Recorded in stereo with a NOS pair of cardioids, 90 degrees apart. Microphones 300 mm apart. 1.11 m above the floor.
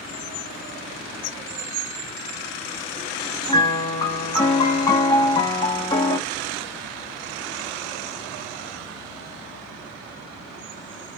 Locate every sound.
3.5 s a piano: 15° left, 1.5 m